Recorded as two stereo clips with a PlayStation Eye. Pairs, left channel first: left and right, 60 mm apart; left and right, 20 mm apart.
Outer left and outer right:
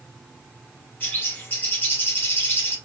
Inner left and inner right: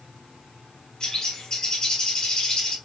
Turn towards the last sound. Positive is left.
turn(degrees=35)  # may be behind; listen again after turning